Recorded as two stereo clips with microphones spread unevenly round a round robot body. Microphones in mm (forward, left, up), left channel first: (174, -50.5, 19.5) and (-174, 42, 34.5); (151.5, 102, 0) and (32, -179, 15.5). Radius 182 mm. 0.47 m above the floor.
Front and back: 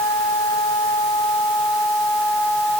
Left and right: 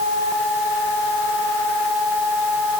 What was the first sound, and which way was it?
Only background noise.